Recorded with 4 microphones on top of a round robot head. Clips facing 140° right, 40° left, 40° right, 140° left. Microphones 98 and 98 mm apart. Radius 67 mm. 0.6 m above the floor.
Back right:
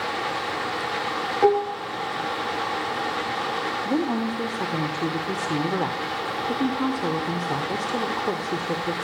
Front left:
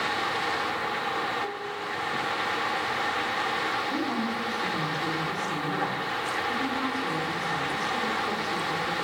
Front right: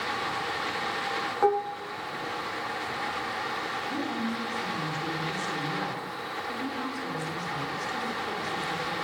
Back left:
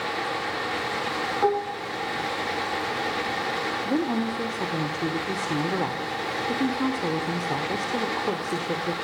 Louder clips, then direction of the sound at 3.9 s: Back right 5 dB, back left 7 dB; 175° left.